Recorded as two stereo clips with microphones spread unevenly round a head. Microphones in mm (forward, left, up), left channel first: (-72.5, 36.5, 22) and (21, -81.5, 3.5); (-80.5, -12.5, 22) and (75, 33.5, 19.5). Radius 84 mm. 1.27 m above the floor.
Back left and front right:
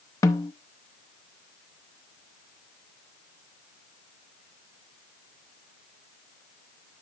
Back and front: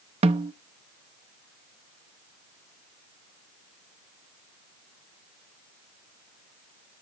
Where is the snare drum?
65° left, 0.8 m.